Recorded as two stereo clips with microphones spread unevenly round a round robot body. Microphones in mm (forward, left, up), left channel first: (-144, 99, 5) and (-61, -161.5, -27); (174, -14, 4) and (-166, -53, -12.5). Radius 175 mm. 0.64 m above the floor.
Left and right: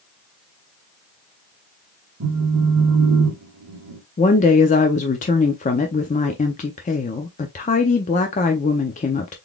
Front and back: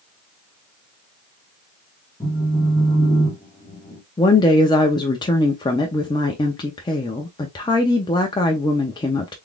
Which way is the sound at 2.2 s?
70° right.